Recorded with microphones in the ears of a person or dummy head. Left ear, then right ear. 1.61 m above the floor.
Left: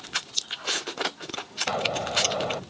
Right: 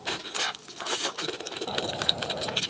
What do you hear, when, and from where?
1.7 s an explosion: 70° left (ahead or behind)